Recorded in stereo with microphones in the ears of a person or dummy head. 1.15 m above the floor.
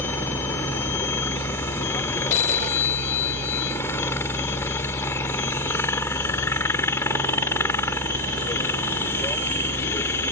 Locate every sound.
0.0 s a helicopter: 15° left (ahead or behind)
2.3 s a phone ringing: 40° left (ahead or behind)